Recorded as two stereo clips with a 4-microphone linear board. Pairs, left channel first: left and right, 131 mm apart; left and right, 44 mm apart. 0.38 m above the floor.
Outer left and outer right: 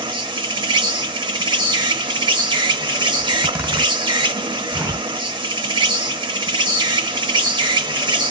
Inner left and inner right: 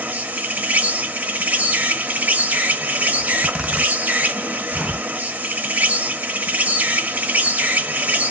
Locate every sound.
0.0 s an insect: 35° right (ahead or behind), 0.7 m
3.2 s a zipper: 15° right (ahead or behind), 1.0 m